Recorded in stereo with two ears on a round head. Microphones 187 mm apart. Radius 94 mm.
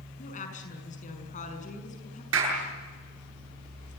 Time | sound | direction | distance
0.2 | a woman speaking | 40° left (ahead or behind) | 6 m
2.3 | a clap | 70° right (ahead or behind) | 9 m